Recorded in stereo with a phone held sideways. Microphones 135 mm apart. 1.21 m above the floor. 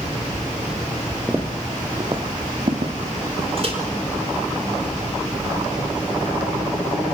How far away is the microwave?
About 4.5 m.